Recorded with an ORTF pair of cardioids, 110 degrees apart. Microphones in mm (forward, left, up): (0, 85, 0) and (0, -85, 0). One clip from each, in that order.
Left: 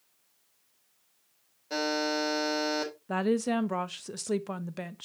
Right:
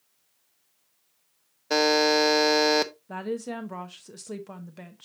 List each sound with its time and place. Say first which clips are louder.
1.7 s a buzzer: right 9 dB; 65° right, 1.0 m
3.1 s a woman speaking: left 4 dB; 30° left, 0.8 m